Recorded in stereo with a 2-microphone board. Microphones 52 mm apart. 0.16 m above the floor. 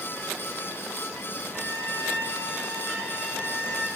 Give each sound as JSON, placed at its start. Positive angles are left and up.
{"t": 1.5, "sound": "a violin", "side_deg": -15, "distance_m": 6.0}